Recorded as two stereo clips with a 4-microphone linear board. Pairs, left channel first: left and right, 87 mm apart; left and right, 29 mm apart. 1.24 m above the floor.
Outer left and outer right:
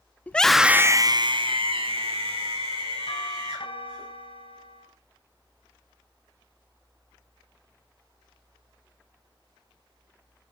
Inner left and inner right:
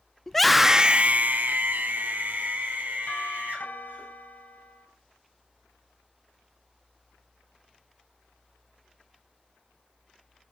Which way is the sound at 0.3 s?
15° left (ahead or behind).